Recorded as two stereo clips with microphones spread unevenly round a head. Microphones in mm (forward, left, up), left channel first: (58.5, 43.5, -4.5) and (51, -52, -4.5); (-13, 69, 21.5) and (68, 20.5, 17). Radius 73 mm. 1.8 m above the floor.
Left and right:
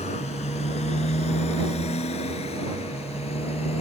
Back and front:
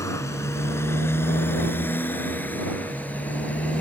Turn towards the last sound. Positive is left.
turn(degrees=75)